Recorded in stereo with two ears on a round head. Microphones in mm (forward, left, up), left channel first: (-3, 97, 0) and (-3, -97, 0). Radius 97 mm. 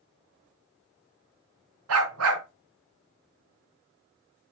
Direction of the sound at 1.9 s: 75° right (ahead or behind).